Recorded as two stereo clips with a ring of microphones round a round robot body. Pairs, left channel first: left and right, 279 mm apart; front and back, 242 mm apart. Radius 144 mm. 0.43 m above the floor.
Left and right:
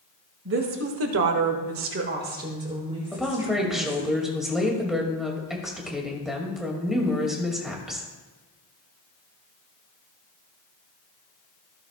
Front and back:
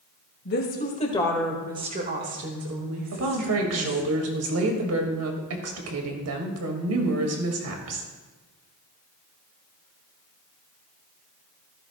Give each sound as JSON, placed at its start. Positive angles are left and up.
{"t": 0.5, "sound": "a woman speaking", "azimuth_deg": -45, "distance_m": 2.0}
{"t": 3.1, "sound": "a woman speaking", "azimuth_deg": 180, "distance_m": 1.9}